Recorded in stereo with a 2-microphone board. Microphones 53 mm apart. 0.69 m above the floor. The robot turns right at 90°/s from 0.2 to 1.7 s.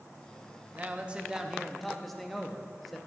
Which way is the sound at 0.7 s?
25° right (ahead or behind).